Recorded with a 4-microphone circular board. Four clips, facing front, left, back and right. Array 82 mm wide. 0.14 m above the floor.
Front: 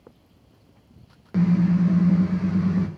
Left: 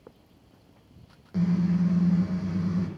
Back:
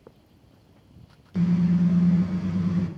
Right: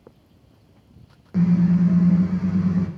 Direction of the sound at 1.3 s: 10° right.